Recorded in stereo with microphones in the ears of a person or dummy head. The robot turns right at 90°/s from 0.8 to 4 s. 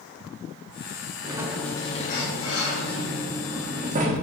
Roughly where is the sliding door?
Ahead right.